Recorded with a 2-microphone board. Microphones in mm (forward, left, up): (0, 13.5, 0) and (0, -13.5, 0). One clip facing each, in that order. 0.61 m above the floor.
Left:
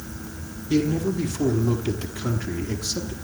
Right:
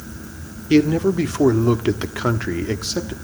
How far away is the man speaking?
About 1.4 m.